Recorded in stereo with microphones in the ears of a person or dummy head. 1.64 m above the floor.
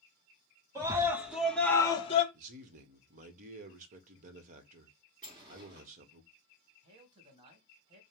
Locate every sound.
0.8 s a scream: 25° right (ahead or behind), 1.5 m; by 2.2 s 35° left (ahead or behind), 0.9 m
2.3 s a man speaking: 50° right (ahead or behind), 1.0 m
5.2 s a sliding door: 30° right (ahead or behind), 2.5 m
6.8 s a man speaking: 35° right (ahead or behind), 1.8 m